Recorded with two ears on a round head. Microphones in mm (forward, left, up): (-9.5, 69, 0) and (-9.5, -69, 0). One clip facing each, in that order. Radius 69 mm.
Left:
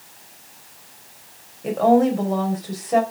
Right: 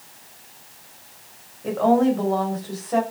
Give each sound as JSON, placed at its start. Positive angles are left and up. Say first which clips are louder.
{"t": 1.6, "sound": "a woman speaking", "louder": "left 2 dB", "side_deg": 15, "distance_m": 4.5}